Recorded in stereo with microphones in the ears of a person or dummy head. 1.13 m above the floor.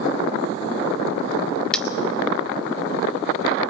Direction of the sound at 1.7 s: Centre (ahead or behind).